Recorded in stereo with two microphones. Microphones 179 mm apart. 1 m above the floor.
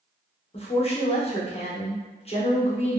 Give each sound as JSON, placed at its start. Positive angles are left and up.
{"t": 0.5, "sound": "a woman speaking", "side_deg": 35, "distance_m": 0.8}